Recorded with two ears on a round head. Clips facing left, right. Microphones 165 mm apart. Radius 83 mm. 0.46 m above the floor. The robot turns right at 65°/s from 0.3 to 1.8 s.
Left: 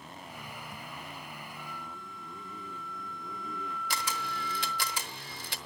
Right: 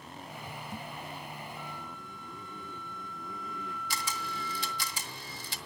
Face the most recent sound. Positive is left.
turn(degrees=50)  # may be behind; listen again after turning